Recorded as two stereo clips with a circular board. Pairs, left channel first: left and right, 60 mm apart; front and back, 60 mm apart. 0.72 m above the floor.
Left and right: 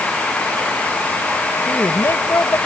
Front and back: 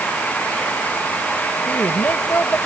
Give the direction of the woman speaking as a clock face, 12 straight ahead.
10 o'clock.